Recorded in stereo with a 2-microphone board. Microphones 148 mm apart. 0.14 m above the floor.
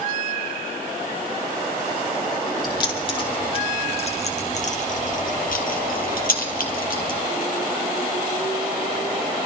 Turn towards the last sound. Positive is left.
turn(degrees=65)  # may be behind; listen again after turning